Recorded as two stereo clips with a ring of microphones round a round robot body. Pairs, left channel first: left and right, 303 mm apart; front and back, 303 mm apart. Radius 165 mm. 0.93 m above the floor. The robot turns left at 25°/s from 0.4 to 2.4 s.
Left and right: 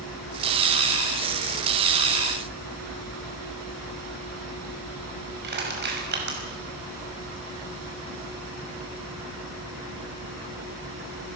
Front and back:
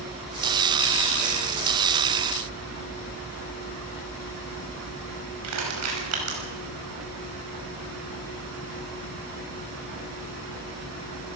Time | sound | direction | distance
5.4 | crushing | 145° right | 6 m